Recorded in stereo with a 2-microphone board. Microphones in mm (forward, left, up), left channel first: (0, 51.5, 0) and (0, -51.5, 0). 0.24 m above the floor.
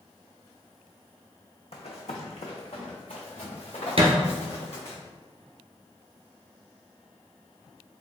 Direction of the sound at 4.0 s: 70° right (ahead or behind).